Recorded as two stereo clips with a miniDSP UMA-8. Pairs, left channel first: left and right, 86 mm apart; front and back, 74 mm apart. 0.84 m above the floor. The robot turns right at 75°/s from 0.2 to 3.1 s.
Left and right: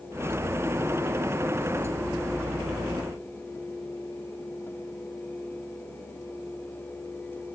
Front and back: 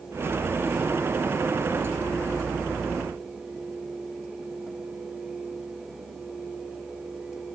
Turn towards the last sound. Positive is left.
No sound to turn to.